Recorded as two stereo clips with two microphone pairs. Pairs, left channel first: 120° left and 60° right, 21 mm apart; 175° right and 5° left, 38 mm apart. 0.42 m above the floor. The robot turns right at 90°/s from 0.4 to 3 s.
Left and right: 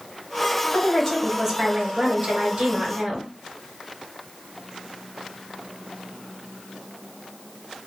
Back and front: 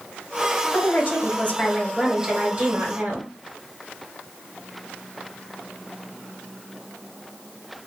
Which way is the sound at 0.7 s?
150° left.